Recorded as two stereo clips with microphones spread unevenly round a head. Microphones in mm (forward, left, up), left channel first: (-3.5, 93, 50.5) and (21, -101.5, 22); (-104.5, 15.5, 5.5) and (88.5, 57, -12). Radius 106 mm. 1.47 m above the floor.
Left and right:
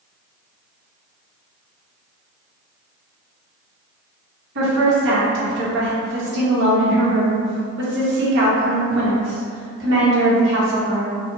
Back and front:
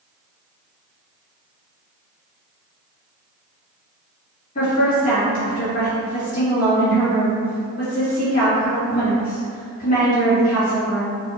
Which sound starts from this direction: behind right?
A woman speaking, at 4.5 s.